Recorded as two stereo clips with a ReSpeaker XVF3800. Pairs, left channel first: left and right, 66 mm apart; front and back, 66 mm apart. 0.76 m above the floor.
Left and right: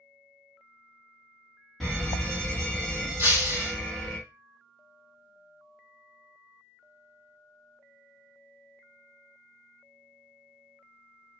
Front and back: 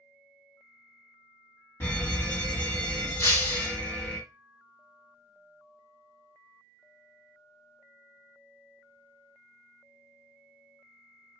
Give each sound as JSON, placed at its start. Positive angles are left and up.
{"t": 1.8, "sound": "a fire alarm", "azimuth_deg": 5, "distance_m": 1.6}
{"t": 3.2, "sound": "breaking glass", "azimuth_deg": -40, "distance_m": 2.5}